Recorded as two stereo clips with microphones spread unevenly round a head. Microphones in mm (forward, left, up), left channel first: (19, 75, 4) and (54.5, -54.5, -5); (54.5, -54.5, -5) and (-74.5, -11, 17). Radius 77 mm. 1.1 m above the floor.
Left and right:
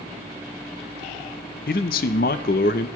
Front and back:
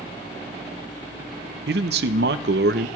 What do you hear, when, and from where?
1.7 s a man speaking: 140° left, 0.6 m